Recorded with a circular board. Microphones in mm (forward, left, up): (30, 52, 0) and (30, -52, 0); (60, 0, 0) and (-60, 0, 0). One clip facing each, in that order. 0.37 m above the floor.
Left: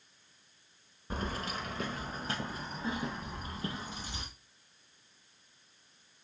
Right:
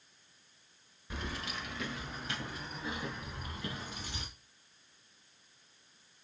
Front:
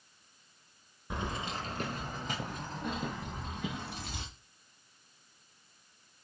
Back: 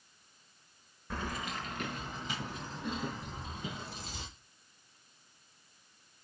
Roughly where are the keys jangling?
Ahead left.